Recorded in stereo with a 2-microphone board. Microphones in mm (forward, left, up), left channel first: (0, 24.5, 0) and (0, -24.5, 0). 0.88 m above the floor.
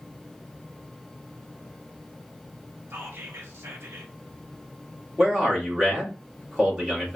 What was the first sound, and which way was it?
Whispering, 60° right (ahead or behind).